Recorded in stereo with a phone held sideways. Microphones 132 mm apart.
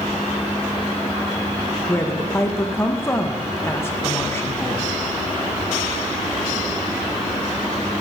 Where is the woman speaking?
20° left (ahead or behind), 0.8 m.